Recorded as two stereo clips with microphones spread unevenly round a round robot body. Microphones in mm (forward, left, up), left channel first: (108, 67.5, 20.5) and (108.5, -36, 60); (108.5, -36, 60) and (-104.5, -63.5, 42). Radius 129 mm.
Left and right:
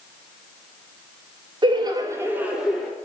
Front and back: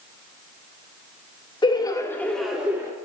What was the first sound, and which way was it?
Laughter, 50° right.